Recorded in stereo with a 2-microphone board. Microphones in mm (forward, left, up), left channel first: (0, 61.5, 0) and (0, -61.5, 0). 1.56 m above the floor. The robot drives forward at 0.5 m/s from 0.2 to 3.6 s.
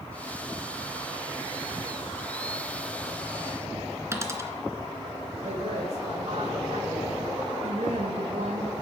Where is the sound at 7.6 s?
85° right, 9 m.